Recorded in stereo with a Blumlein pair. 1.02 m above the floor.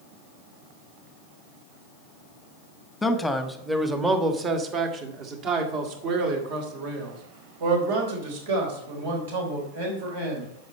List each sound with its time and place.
3.0 s a man speaking: 10° left, 1.2 m; by 10.5 s 60° right, 4.5 m